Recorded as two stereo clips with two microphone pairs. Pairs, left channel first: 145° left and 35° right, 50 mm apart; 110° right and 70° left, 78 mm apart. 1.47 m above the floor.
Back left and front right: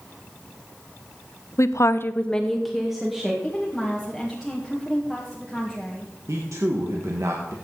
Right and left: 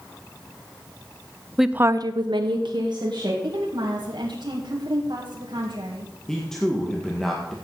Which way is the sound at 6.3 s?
25° right.